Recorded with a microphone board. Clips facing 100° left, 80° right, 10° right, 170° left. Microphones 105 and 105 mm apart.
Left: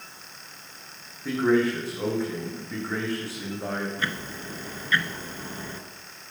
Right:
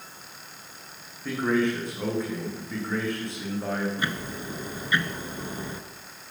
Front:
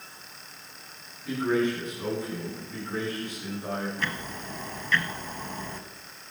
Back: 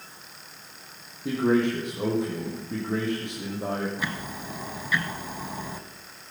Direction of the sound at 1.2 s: 175° right.